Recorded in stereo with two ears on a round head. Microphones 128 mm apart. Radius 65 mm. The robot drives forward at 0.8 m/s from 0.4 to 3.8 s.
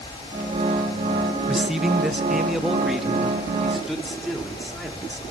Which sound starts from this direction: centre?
A man speaking, at 1.5 s.